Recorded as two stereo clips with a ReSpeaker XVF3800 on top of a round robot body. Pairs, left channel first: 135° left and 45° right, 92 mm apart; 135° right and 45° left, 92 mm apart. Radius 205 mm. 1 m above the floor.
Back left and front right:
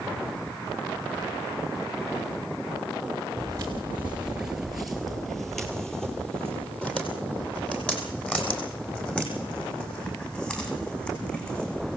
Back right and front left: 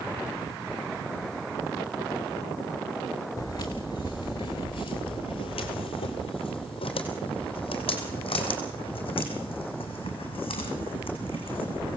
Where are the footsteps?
90° right, 1.1 m; by 12.0 s 150° right, 6 m.